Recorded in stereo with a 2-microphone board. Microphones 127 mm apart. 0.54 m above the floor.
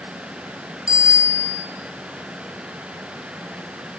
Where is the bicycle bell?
25° left (ahead or behind), 5 m.